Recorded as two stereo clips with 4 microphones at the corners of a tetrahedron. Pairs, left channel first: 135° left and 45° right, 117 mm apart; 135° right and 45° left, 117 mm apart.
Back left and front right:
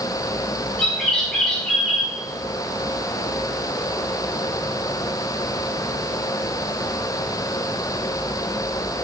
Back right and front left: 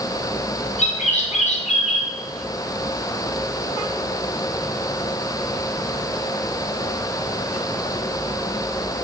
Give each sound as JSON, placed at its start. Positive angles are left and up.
{"t": 0.8, "sound": "a bird", "azimuth_deg": -140, "distance_m": 0.6}